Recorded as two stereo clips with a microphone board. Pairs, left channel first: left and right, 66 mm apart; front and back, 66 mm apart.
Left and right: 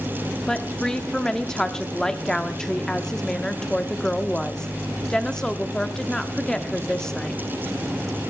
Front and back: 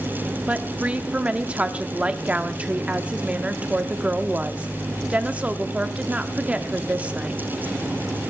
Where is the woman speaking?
155° left, 0.7 m.